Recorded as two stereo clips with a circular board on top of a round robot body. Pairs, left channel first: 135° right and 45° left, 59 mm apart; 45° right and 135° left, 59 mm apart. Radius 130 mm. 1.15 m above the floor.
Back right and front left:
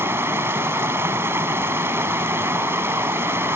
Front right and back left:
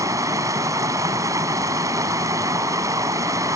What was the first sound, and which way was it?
Running water, 100° left.